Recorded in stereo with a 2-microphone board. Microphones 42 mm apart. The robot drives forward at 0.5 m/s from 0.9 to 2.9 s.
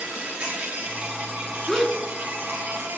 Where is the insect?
45° right (ahead or behind), 3 m; by 3.0 s 65° right (ahead or behind), 2.5 m.